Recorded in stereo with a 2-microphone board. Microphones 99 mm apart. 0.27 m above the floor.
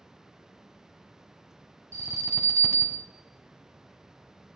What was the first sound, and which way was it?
An alarm, 25° right (ahead or behind).